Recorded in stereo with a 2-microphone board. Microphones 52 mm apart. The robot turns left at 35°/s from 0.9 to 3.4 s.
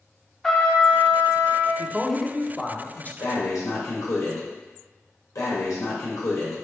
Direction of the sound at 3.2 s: 85° left.